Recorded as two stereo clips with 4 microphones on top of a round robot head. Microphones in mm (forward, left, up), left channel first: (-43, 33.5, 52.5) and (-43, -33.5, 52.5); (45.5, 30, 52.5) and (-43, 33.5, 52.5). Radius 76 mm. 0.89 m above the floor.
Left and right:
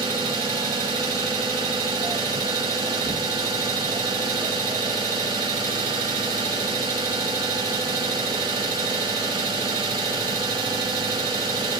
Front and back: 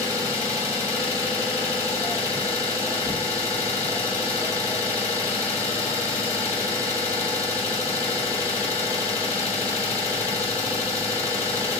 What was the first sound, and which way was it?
An engine running, 75° right.